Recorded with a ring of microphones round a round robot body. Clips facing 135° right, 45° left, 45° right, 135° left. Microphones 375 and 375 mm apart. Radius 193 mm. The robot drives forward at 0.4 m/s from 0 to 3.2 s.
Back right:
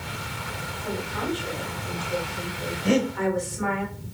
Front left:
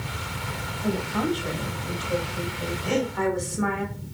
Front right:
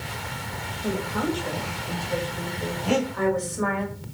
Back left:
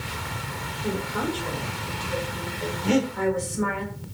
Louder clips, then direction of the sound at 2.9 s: Back right 4 dB, back left 2 dB; 165° right.